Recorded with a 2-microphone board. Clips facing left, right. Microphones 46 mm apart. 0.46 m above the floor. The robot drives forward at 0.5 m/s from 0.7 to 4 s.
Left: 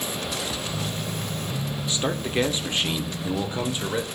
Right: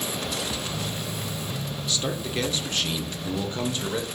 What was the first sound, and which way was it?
A man speaking, 25° left (ahead or behind).